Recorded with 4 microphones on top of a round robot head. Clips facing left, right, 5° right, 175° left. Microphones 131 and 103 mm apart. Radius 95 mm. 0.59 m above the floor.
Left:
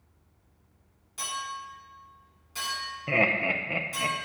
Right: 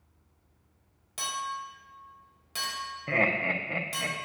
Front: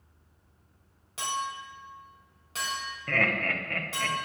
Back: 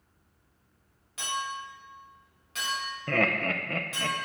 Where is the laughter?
160° left, 0.6 m.